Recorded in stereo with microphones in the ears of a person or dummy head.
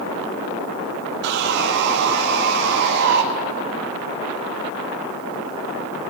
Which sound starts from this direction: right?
Sawing, at 1.2 s.